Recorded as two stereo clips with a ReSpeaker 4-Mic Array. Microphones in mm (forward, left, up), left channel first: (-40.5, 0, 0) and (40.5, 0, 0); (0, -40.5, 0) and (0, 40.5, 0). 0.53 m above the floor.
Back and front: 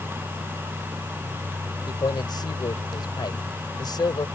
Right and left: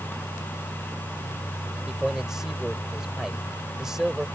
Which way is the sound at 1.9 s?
175° left.